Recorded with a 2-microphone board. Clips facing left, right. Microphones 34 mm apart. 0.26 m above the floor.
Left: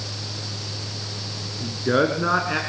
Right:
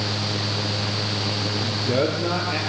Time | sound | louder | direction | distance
1.6 | a man speaking | left 3 dB | 45° left (ahead or behind) | 3.5 m